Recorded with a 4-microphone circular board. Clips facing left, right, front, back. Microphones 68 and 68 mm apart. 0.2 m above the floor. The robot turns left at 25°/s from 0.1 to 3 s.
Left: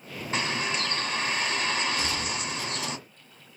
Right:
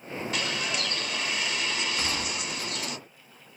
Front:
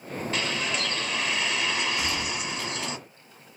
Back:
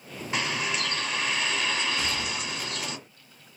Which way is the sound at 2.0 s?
85° right.